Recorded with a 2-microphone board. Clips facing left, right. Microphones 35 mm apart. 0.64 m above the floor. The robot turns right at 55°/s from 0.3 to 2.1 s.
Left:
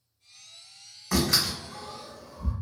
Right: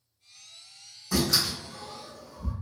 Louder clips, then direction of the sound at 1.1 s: Left 1 dB; 80° left.